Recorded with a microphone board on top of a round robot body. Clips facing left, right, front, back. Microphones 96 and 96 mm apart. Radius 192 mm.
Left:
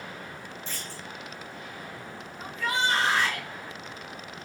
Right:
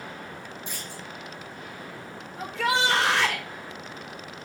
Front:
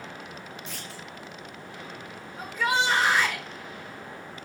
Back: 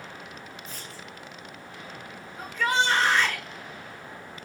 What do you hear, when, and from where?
0.7 s a clunk: 15° right, 2 m
2.4 s a shout: 80° right, 3 m